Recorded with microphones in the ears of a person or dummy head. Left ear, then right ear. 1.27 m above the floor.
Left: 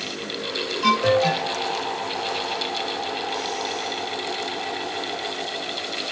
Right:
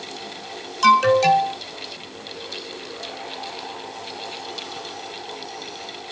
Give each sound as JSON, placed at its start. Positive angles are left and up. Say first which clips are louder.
{"t": 0.8, "sound": "an alarm", "louder": "right 5 dB", "side_deg": -60, "distance_m": 2.5}